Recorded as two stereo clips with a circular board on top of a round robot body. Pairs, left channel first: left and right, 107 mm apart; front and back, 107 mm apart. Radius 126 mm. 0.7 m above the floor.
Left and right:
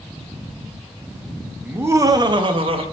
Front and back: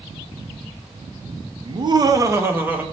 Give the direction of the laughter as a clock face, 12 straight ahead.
5 o'clock.